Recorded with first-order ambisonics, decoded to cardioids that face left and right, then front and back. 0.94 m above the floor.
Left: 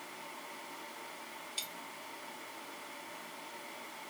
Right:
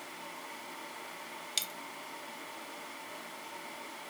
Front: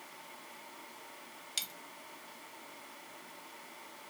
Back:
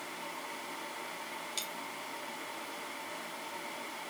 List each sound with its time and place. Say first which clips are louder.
1.6 s a dropped coin: right 6 dB, front 3 dB; 75° right, 0.6 m